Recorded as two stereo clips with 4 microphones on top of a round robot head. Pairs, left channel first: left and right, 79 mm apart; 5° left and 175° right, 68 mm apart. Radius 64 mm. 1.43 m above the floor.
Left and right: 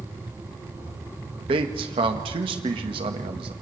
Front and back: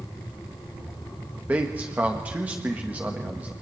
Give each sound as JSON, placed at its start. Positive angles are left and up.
{"t": 1.5, "sound": "a man speaking", "azimuth_deg": -105, "distance_m": 1.6}